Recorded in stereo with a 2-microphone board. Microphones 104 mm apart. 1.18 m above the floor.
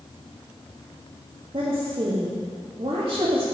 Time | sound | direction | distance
1.5 | a woman speaking | 70° right (ahead or behind) | 1.7 m